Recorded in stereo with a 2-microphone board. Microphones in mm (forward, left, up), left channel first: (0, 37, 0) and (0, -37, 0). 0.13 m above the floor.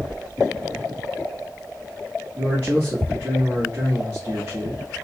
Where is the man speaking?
30° right (ahead or behind), 1.4 m.